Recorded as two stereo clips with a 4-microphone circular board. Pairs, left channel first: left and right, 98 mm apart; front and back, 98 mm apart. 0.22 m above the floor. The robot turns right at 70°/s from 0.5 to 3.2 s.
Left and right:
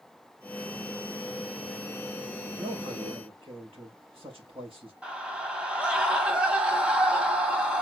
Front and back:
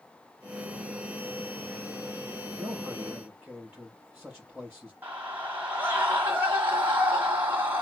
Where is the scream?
150° right, 1.4 m.